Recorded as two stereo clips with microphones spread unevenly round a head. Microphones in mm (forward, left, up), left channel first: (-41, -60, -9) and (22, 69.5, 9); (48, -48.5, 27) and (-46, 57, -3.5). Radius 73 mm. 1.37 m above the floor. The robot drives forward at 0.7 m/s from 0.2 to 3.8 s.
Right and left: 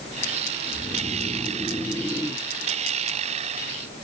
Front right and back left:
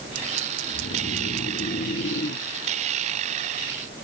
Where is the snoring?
20° right, 2 m; by 2.5 s 45° right, 1.1 m.